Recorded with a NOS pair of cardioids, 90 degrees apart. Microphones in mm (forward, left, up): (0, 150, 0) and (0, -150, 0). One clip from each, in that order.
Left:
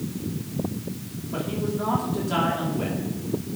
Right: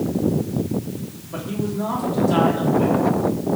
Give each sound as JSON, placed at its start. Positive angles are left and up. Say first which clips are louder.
{"t": 1.3, "sound": "a man speaking", "louder": "right 1 dB", "azimuth_deg": -5, "distance_m": 4.5}